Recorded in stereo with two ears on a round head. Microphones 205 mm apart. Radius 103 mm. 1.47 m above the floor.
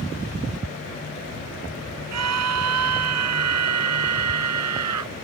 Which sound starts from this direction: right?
A scream, at 2.1 s.